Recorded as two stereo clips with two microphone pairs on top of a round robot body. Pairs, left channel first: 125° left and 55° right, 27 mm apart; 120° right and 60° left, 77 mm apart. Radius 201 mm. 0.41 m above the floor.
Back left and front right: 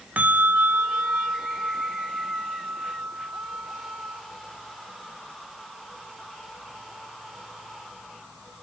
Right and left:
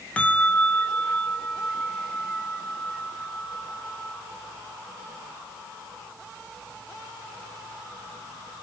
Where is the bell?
45° right, 1.5 m.